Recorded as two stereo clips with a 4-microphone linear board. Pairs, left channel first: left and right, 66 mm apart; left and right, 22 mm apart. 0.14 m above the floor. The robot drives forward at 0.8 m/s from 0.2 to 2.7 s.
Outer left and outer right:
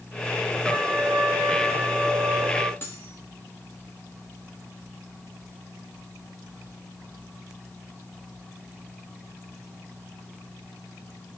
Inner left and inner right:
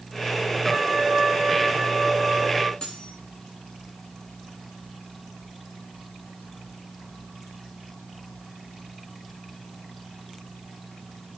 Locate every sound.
0.7 s a trumpet: 25° right (ahead or behind), 4.5 m; by 2.7 s 35° right (ahead or behind), 3 m
2.8 s cutlery clinking: 35° left (ahead or behind), 7 m